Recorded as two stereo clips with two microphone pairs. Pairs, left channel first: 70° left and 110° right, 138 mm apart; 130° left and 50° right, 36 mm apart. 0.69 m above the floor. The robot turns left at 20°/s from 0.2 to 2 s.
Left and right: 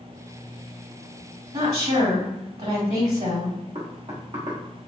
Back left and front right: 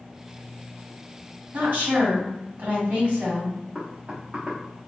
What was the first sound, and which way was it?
A woman speaking, 75° right.